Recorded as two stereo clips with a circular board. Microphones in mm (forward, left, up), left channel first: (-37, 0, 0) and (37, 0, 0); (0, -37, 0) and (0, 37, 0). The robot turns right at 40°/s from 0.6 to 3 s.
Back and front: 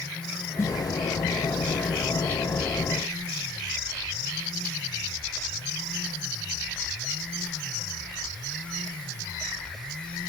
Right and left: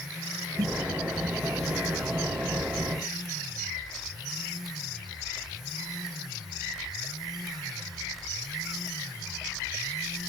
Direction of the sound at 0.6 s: 125° left.